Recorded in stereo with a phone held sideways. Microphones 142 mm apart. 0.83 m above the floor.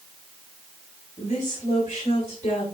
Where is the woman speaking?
70° left (ahead or behind), 3.5 m.